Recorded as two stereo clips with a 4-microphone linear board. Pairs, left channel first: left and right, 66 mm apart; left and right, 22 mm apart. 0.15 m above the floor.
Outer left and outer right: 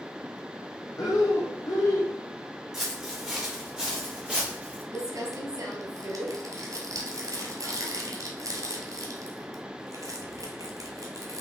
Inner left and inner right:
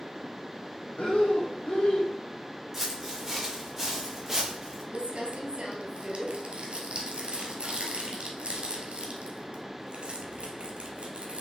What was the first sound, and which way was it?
Breathing, 65° left (ahead or behind).